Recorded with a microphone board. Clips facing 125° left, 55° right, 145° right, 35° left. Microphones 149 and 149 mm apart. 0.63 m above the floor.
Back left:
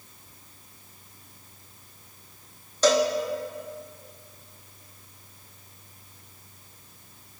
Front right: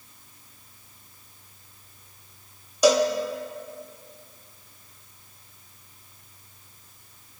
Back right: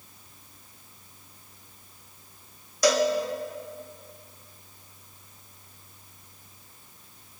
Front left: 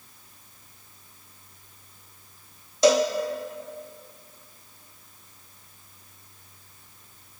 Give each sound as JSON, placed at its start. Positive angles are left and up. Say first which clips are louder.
{"t": 2.8, "sound": "a cowbell", "louder": "front right 2 dB, front left 3 dB", "azimuth_deg": 5, "distance_m": 1.1}